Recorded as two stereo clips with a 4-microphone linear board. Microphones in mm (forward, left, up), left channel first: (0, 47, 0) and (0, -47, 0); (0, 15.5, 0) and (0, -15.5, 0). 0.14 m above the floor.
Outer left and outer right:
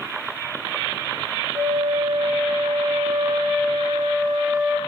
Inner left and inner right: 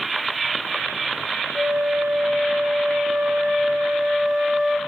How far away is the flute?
About 6 m.